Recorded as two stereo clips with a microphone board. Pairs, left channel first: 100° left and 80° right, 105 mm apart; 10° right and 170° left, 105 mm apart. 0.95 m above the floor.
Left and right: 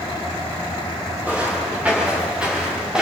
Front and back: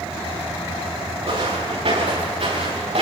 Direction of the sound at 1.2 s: 155° right.